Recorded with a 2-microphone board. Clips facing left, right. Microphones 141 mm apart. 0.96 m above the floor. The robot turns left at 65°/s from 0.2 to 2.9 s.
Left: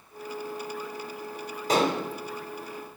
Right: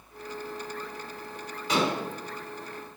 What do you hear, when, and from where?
1.7 s dishes clattering: 45° left (ahead or behind), 1.6 m; by 2.0 s 65° left (ahead or behind), 1.6 m